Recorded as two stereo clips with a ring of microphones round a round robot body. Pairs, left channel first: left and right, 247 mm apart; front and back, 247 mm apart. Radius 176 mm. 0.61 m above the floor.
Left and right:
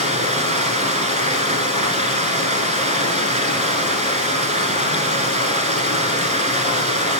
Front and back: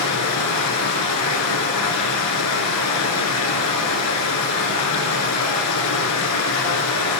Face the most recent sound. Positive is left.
turn(degrees=-30)